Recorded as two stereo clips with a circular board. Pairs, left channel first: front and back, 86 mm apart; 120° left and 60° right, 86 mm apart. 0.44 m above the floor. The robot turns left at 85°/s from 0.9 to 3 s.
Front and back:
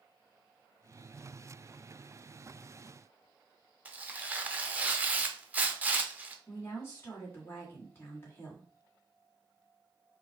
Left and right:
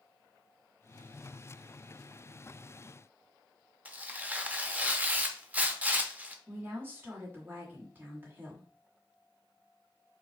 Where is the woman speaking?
25° right, 1.4 m.